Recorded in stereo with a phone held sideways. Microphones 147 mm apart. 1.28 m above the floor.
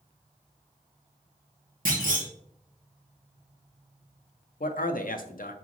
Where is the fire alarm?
No fire alarm in this recording.